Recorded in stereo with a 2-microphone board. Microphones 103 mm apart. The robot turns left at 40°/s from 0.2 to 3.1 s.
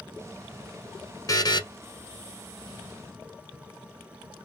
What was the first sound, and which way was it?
A buzzer, 35° left (ahead or behind).